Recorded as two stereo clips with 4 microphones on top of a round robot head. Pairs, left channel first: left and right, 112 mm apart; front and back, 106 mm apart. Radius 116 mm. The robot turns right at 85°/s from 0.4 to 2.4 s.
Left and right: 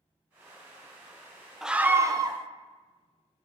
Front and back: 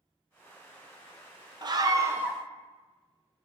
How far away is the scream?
About 0.8 m.